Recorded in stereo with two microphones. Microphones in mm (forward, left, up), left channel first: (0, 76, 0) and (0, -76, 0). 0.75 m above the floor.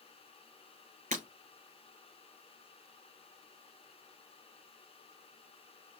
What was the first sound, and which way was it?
Breaking glass, 55° right (ahead or behind).